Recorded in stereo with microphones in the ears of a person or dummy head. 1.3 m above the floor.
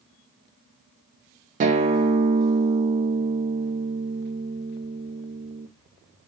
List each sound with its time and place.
1.6 s a guitar: 35° right (ahead or behind), 0.5 m